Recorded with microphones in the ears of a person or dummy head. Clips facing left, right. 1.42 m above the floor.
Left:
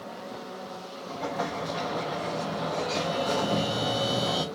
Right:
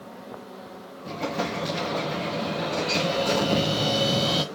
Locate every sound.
1.1 s an explosion: 35° right (ahead or behind), 0.9 m